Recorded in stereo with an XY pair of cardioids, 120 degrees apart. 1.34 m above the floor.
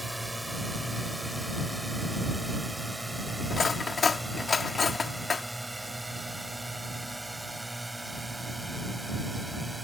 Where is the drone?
5° right.